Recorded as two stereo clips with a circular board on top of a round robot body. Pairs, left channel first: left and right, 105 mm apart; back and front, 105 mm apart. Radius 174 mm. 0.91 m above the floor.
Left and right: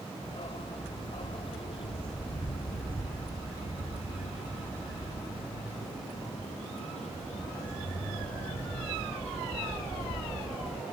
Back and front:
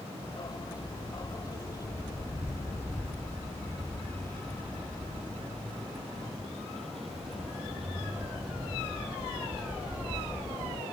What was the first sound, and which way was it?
A dog barking, 125° left.